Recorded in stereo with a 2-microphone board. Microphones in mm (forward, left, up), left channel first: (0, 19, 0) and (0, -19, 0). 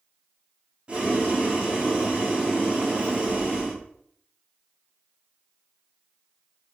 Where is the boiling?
30° right (ahead or behind), 3.5 m.